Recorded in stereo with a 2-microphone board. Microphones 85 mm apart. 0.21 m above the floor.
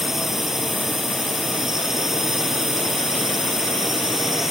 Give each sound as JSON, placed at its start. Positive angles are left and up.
{"t": 0.0, "sound": "a drone", "side_deg": -5}